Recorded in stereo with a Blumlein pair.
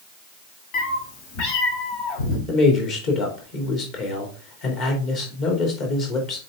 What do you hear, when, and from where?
0.7 s a cat meowing: 45° left, 1.5 m; by 2.4 s 50° left, 3 m
2.5 s a man speaking: 35° left, 3 m